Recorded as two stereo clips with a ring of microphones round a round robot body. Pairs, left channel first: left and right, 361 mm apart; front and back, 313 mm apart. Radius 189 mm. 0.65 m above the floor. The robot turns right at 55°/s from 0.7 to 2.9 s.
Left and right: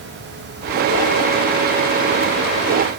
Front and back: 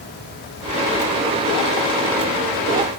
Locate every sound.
Only background noise.